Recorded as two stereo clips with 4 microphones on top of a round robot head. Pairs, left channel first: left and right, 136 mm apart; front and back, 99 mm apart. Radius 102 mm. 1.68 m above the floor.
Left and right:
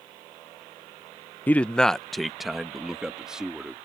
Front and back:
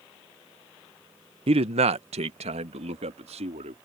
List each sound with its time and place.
1.5 s a man speaking: 165° left; by 3.8 s 175° right